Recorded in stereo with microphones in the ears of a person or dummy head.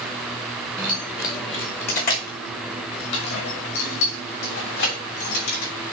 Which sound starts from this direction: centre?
Keys jangling, at 0.8 s.